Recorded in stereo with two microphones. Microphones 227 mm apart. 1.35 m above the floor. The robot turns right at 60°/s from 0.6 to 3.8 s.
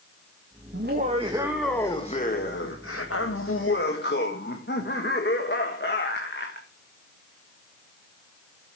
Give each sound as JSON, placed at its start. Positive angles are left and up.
{"t": 0.7, "sound": "laughter", "azimuth_deg": -55, "distance_m": 1.7}